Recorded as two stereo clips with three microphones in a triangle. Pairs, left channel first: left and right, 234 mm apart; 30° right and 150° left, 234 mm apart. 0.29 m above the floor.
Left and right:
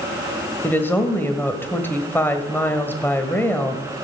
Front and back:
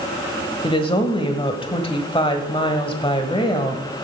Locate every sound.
0.6 s a woman speaking: 15° left, 1.1 m